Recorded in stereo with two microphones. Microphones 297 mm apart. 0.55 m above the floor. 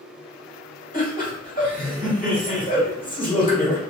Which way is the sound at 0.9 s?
30° left (ahead or behind).